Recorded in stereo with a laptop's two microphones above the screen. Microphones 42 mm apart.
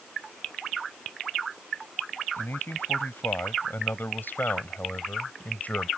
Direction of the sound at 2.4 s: 65° left (ahead or behind).